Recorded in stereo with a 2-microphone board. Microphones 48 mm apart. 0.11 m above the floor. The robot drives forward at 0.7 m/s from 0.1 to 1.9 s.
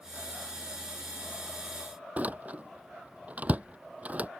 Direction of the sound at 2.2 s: 30° right (ahead or behind).